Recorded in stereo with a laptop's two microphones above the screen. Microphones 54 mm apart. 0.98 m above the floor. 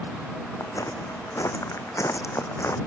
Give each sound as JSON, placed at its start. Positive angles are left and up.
{"t": 0.6, "sound": "footsteps", "side_deg": 75}